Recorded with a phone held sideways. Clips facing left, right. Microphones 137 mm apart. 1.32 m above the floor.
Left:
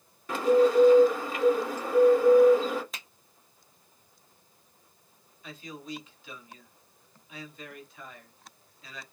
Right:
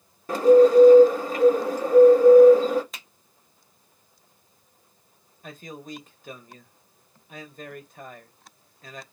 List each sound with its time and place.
0.3 s a bird: 40° right (ahead or behind), 0.9 m
2.9 s a finger snap: centre (ahead or behind), 0.8 m
5.4 s a man speaking: 45° right (ahead or behind), 0.8 m